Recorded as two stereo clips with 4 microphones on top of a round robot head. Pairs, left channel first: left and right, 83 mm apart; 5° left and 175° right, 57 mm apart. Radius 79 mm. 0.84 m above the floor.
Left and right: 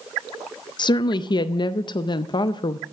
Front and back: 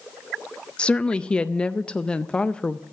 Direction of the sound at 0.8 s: 75° left.